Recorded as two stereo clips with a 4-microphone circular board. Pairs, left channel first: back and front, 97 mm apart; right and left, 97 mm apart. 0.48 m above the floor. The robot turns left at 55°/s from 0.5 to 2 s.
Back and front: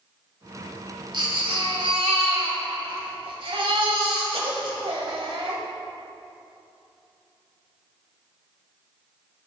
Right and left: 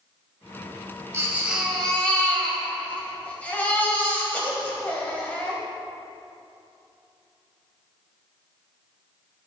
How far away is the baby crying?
About 1.6 m.